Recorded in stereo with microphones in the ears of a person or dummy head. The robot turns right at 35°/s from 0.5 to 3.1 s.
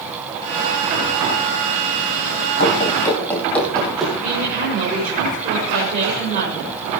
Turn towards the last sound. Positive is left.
turn(degrees=-45)  # may be behind; listen again after turning